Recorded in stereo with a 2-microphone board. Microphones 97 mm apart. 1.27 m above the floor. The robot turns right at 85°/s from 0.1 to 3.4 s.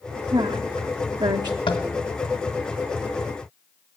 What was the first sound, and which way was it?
A woman speaking, 35° right (ahead or behind).